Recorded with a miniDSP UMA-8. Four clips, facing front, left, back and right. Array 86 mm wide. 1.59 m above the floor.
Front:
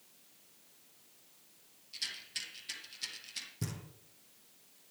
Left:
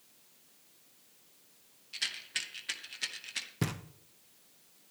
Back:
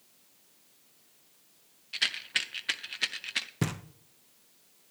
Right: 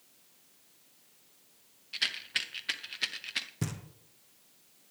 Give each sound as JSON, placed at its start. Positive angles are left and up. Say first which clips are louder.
{"t": 1.9, "sound": "a rattle", "louder": "right 4 dB, back 14 dB", "azimuth_deg": -160, "distance_m": 0.6}
{"t": 3.6, "sound": "knocking", "louder": "left 3 dB, back 10 dB", "azimuth_deg": 160, "distance_m": 0.6}